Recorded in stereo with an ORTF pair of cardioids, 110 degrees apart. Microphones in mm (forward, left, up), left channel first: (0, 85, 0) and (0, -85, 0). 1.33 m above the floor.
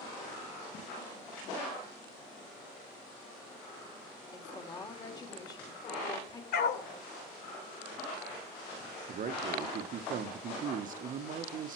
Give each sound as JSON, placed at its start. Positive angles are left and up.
{"t": 4.3, "sound": "a woman speaking", "azimuth_deg": 20, "distance_m": 2.5}
{"t": 6.5, "sound": "a dog barking", "azimuth_deg": 65, "distance_m": 2.5}
{"t": 9.1, "sound": "a man speaking", "azimuth_deg": -50, "distance_m": 1.1}